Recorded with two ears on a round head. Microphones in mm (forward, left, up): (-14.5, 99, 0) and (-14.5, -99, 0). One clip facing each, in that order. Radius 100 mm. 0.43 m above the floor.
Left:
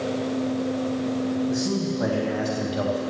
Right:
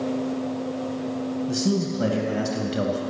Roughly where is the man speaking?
Right.